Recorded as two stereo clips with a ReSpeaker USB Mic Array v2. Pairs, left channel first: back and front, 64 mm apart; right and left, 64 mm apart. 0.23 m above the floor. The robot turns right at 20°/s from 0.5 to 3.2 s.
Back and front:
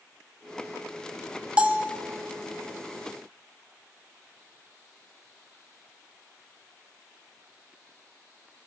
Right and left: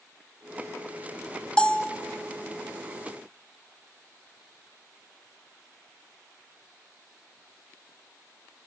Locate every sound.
1.6 s a bell: 40° right, 1.3 m; by 2.0 s 30° right, 1.3 m